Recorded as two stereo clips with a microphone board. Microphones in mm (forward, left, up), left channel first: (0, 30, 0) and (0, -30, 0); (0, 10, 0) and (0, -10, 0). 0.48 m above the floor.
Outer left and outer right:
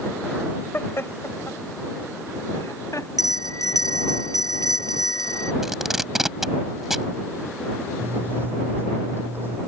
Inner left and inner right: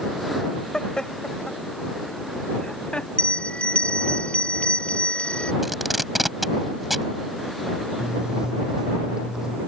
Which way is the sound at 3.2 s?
70° left (ahead or behind).